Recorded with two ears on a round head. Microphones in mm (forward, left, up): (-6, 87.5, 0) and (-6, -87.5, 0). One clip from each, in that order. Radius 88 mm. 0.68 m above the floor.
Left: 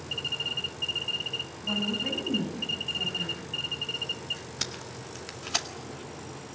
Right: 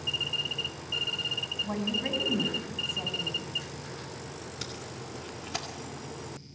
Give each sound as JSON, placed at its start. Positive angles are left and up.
{"t": 1.6, "sound": "a woman speaking", "side_deg": -50, "distance_m": 4.5}
{"t": 4.6, "sound": "tape being pulled", "side_deg": 40, "distance_m": 1.8}